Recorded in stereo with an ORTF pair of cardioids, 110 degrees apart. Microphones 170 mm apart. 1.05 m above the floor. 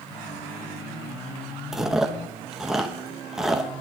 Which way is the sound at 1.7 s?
Straight ahead.